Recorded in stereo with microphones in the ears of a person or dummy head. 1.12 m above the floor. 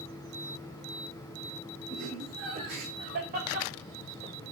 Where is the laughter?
55° right (ahead or behind), 4.5 m; by 4.3 s 30° right (ahead or behind), 1.5 m.